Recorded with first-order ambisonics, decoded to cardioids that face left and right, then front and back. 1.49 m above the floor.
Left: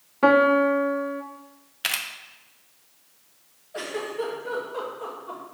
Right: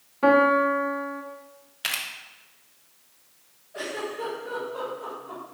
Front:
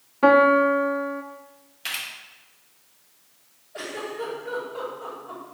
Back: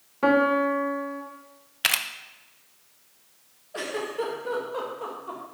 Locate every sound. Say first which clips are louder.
0.2 s a piano: left 1 dB, front 5 dB; 70° left, 0.5 m
1.8 s a camera shutter: left 2 dB, back 6 dB; 170° left, 0.5 m
3.7 s a giggle: left 2 dB, back 2 dB; 160° left, 1.9 m